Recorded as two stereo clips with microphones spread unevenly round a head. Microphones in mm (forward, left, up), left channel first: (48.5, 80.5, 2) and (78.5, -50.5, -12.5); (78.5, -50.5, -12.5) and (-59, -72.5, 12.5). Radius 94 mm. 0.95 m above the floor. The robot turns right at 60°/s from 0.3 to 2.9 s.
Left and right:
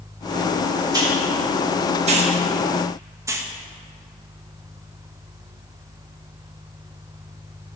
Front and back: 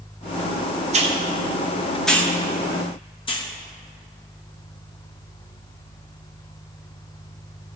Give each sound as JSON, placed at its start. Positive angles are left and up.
{"t": 0.9, "sound": "a hiss", "azimuth_deg": -135, "distance_m": 1.2}